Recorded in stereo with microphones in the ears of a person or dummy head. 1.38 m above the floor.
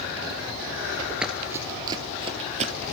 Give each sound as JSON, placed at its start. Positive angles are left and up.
{"t": 1.2, "sound": "running footsteps", "side_deg": -5, "distance_m": 1.4}